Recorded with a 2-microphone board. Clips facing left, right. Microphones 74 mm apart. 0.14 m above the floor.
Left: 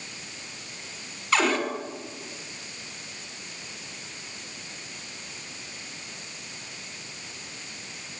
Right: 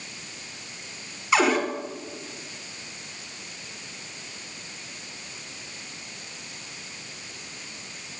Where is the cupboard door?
10° right (ahead or behind), 1.6 m.